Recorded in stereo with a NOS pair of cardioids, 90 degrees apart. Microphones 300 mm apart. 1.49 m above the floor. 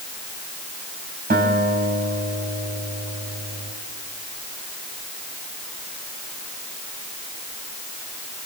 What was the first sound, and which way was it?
A guitar, 30° right.